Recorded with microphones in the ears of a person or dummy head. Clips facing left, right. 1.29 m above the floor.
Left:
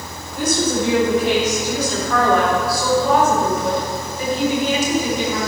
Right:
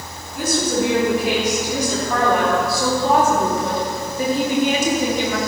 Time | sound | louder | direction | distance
0.3 | a woman speaking | left 1 dB | centre (ahead or behind) | 3 m